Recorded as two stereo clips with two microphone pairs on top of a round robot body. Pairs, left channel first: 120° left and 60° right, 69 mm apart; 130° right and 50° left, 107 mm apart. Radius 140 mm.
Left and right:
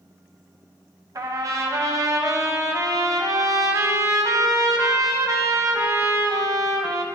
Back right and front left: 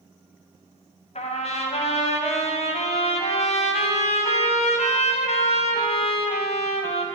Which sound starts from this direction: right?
A trumpet, at 1.1 s.